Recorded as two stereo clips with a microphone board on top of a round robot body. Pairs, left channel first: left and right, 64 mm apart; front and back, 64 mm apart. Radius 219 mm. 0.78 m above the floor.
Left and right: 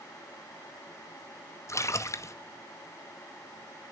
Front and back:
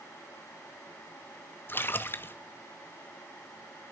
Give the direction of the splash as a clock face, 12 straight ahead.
10 o'clock.